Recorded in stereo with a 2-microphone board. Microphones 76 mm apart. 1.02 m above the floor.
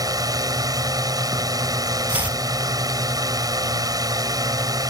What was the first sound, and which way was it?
A drone, 55° right (ahead or behind).